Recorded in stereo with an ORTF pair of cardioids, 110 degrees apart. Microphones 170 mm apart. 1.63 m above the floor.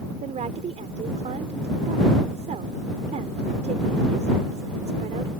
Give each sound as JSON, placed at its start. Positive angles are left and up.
{"t": 0.2, "sound": "a woman speaking", "azimuth_deg": -45}